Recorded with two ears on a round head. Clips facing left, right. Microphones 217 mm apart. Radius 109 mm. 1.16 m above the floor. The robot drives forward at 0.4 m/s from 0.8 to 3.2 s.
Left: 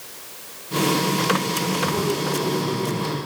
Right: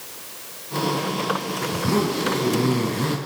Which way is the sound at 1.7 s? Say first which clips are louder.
Right 3 dB; 50° right (ahead or behind).